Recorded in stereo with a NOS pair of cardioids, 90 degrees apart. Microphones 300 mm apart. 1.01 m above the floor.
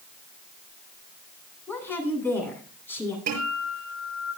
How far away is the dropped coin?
I don't hear a dropped coin.